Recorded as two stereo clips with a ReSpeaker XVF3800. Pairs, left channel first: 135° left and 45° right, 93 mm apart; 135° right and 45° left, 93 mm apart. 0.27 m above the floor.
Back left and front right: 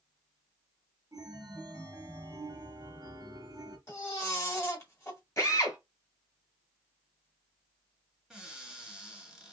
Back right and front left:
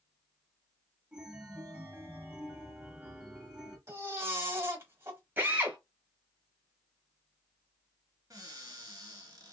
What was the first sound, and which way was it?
A chime, 25° right.